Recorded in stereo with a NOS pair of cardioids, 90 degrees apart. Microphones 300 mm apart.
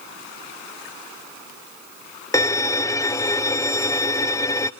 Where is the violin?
10° left, 0.9 m.